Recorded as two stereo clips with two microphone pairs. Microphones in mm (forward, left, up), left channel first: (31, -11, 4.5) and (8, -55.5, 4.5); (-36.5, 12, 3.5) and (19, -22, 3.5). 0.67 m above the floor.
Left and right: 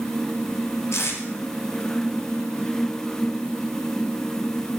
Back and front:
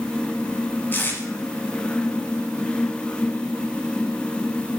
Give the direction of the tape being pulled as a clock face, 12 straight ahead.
9 o'clock.